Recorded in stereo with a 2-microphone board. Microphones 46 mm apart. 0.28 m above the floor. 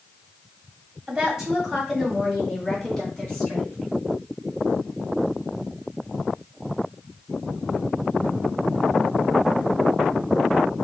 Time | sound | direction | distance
1.1 | a woman speaking | 20° right (ahead or behind) | 1.3 m